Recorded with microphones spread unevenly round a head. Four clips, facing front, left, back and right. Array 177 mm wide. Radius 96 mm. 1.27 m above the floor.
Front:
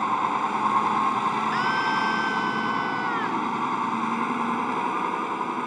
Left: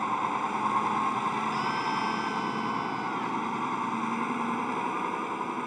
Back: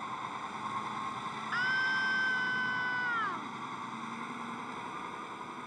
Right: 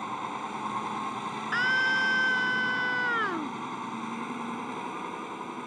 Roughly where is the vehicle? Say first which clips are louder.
Left 6 dB, front 15 dB; ahead.